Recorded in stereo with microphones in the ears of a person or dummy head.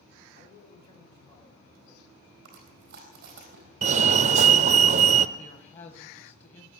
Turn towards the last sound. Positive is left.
turn(degrees=45)  # may be behind; listen again after turning